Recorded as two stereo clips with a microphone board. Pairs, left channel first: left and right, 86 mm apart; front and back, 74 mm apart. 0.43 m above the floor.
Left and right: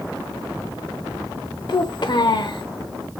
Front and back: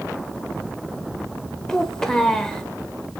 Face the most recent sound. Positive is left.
turn(degrees=80)